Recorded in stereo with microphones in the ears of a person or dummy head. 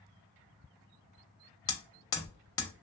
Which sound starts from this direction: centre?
Hammering, at 1.7 s.